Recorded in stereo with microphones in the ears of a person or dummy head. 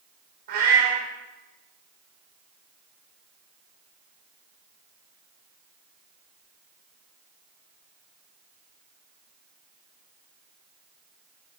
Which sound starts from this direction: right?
A cat meowing, at 0.5 s.